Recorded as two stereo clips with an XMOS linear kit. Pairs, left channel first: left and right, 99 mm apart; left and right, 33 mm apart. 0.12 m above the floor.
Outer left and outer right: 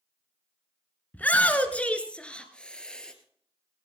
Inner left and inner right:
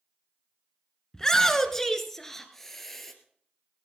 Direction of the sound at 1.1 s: 15° left (ahead or behind).